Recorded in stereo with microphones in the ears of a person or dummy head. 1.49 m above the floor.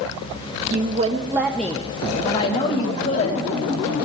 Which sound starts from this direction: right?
A woman speaking, at 0.7 s.